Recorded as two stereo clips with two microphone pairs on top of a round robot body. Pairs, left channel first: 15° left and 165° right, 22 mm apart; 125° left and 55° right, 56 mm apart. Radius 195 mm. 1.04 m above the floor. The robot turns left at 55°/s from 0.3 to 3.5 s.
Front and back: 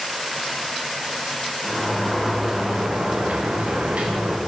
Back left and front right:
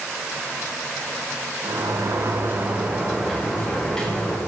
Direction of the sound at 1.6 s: 55° right.